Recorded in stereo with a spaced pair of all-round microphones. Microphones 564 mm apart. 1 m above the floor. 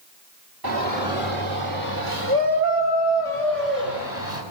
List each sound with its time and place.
0.6 s a shout: 40° right (ahead or behind), 2.0 m; by 4.4 s 75° right (ahead or behind), 5.5 m